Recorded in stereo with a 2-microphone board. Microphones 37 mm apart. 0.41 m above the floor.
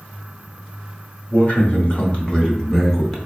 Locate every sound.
1.3 s a man speaking: 40° left (ahead or behind), 1.2 m; by 3.2 s 5° left (ahead or behind), 0.9 m